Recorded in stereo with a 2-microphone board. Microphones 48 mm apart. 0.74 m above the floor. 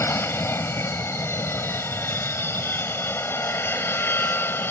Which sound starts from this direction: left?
An aircraft, at 0.0 s.